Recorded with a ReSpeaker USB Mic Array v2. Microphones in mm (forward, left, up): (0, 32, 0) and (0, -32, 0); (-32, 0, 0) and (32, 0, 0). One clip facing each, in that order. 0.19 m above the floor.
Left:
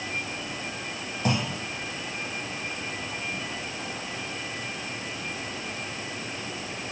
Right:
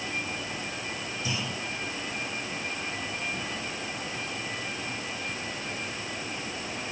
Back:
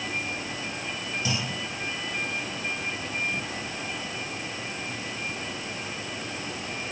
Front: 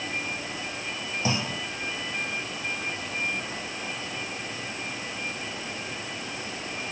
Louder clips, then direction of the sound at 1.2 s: Left 8 dB, front 4 dB; 55° left.